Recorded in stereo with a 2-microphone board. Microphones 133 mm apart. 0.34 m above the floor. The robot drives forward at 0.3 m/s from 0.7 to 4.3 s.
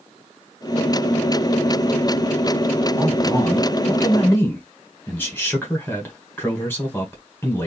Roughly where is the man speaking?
Centre.